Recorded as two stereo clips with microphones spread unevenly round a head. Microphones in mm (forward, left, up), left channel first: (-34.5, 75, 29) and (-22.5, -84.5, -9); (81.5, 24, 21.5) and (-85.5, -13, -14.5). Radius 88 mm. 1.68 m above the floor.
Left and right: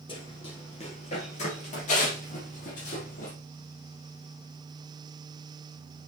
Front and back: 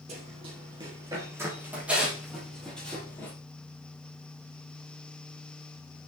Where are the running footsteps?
135° left, 3 m; by 3.3 s 80° left, 3.5 m.